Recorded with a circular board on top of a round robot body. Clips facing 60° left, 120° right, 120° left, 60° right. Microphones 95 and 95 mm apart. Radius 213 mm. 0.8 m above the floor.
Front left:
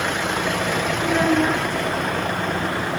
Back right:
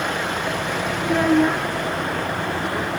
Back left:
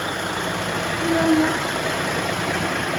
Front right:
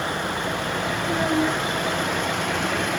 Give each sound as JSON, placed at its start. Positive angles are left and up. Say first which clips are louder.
{"t": 1.0, "sound": "a child speaking", "louder": "back right 2 dB, back left 6 dB", "azimuth_deg": 160, "distance_m": 2.5}